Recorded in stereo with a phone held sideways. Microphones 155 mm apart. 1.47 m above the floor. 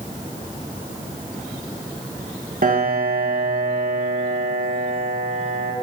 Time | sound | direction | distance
2.6 | a piano | 65° right (ahead or behind) | 1.8 m